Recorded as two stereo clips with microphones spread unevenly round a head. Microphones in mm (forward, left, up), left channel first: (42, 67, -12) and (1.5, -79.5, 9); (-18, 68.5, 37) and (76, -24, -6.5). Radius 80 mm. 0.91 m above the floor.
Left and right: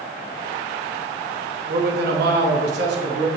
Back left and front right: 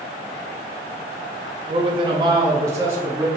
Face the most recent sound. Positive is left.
turn(degrees=-115)